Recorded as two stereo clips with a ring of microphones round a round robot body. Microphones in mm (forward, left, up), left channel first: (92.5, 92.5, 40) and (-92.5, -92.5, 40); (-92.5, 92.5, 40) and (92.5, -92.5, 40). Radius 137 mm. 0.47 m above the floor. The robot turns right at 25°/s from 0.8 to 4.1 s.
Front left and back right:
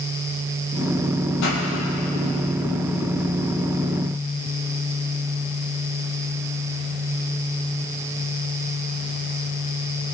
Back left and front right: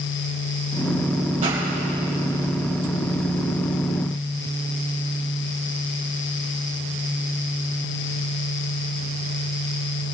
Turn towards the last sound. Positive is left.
turn(degrees=85)